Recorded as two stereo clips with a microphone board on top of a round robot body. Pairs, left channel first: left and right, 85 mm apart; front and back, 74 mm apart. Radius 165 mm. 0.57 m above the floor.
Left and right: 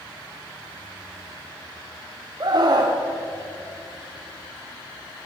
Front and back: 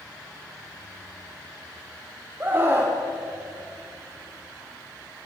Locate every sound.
2.4 s a scream: 120° right, 2 m